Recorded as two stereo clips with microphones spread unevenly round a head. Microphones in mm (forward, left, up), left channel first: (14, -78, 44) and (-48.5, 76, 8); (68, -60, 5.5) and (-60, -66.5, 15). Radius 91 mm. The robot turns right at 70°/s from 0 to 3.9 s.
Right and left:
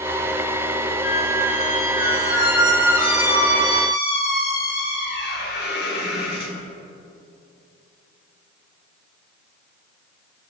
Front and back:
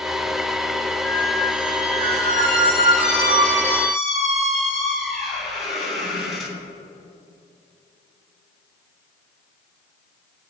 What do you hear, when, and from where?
1.0 s a squeak: 70° left, 4 m; by 6.5 s 90° right, 4 m